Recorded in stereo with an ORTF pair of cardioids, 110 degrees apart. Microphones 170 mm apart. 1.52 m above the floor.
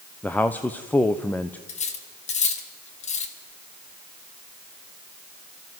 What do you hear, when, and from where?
0.2 s a man speaking: 10° left, 1.0 m
1.7 s cutlery clinking: 45° left, 2 m